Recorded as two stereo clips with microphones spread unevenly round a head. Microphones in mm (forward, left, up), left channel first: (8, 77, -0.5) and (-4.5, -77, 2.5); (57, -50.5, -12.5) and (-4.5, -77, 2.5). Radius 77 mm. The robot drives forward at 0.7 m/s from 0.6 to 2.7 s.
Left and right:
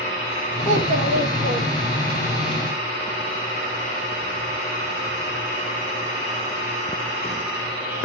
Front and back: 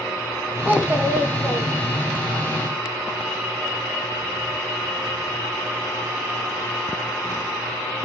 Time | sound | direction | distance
0.7 | a child speaking | 100° right | 1.5 m